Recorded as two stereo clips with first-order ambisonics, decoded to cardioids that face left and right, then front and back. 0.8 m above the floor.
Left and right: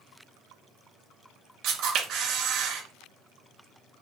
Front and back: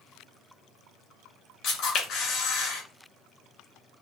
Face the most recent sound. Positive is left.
turn(degrees=-50)